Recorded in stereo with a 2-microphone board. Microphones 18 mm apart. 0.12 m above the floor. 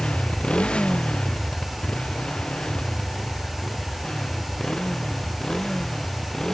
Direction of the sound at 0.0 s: 75° left (ahead or behind).